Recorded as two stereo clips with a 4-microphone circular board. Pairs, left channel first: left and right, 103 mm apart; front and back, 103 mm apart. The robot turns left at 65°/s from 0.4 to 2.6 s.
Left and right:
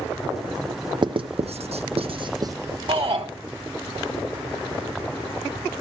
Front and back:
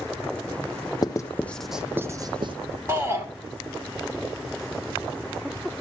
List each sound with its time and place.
1.0 s writing: 50° right, 0.6 m; by 2.5 s 145° right, 0.6 m
2.9 s a shout: 115° right, 2.5 m